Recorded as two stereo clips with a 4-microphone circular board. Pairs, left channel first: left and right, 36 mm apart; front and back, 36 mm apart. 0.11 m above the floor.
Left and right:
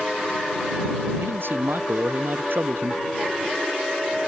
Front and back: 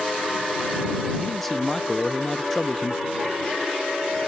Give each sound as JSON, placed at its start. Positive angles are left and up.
{"t": 1.2, "sound": "a man speaking", "azimuth_deg": -80}